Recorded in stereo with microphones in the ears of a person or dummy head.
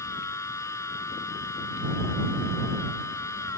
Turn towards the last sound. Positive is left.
turn(degrees=15)  # may be behind; listen again after turning